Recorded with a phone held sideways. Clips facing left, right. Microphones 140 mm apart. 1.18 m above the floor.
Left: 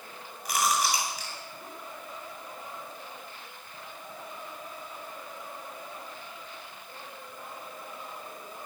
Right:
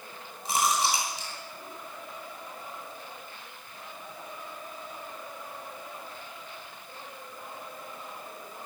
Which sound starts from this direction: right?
Chewing, at 0.5 s.